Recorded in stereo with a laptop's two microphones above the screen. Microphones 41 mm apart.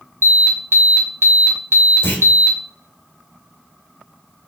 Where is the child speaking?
I don't hear a child speaking.